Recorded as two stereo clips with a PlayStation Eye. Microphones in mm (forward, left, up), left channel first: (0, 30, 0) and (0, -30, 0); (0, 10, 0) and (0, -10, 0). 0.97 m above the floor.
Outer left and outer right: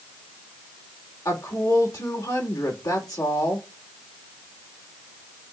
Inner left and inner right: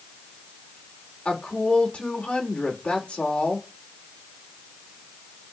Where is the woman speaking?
80° left, 2.5 m.